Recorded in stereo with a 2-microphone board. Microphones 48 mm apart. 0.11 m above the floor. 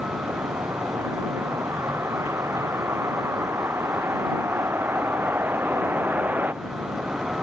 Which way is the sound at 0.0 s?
75° right (ahead or behind).